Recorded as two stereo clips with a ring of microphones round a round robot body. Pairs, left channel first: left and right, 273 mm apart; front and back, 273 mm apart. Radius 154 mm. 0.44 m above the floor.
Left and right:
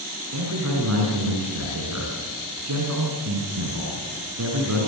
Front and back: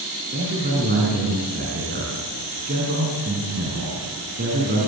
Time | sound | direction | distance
0.3 | a man speaking | 120° right | 5.5 m